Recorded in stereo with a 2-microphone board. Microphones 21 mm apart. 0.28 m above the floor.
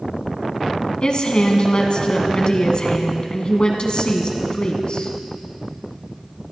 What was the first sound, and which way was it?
A woman speaking, 50° left (ahead or behind).